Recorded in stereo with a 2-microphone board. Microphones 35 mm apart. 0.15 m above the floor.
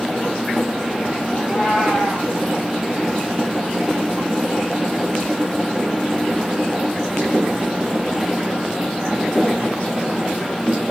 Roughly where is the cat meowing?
Centre.